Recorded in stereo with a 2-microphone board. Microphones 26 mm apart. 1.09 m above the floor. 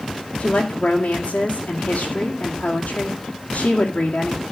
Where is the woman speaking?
85° left, 2.5 m.